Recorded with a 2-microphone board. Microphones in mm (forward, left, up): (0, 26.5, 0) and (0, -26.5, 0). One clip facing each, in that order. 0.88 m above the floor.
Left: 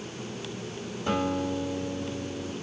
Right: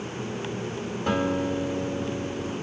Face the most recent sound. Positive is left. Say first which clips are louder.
# right 2 dB
turn(degrees=-55)  # may be behind; listen again after turning